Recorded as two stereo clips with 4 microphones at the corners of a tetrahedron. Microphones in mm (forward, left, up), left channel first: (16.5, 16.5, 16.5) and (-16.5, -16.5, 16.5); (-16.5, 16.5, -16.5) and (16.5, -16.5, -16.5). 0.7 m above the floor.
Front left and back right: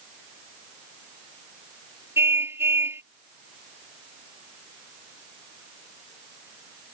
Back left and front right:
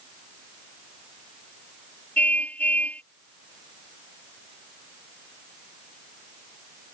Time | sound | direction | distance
2.2 | a car horn | 165° right | ?